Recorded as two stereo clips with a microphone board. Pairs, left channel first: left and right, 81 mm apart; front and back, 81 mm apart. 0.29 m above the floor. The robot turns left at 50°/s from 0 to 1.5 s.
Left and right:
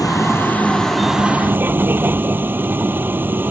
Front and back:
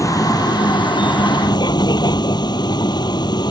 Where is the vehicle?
50° left; by 3.5 s 25° right.